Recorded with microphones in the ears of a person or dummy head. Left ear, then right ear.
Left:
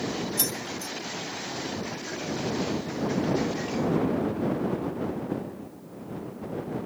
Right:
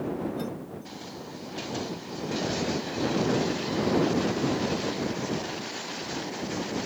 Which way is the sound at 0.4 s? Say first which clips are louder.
Left 5 dB; 70° left (ahead or behind).